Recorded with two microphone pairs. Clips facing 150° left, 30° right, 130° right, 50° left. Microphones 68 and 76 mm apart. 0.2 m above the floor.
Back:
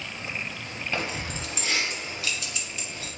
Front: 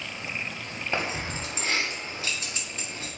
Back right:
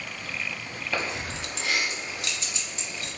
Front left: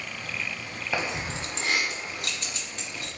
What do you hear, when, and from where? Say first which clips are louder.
0.9 s keys jangling: front 2 dB, front left 1 dB; 5° left, 0.9 m; by 3.1 s 25° left, 2.0 m